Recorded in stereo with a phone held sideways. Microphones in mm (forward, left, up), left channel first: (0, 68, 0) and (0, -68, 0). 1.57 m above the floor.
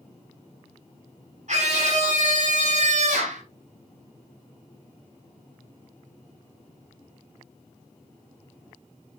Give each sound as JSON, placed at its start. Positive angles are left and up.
{"t": 1.5, "sound": "a scream", "side_deg": -60, "distance_m": 5.5}